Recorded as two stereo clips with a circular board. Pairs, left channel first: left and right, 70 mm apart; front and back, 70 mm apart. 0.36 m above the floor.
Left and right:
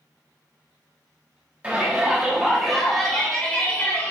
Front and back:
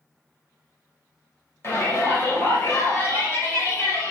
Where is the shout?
30° right, 1.8 m; by 4.1 s 35° left, 1.8 m.